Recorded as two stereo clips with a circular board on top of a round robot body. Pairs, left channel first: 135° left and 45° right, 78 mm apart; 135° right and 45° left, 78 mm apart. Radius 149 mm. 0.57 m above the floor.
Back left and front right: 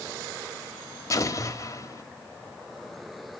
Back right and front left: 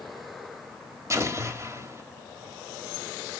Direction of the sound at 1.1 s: 90° left.